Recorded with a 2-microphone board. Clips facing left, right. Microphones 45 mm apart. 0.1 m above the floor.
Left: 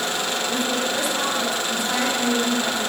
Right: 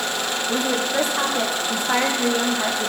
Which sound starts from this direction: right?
A woman speaking, at 0.5 s.